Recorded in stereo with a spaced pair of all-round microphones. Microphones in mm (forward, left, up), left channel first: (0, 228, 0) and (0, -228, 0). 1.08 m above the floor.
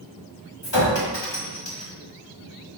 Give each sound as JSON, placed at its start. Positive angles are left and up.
{"t": 0.6, "sound": "a clink", "side_deg": 60, "distance_m": 1.2}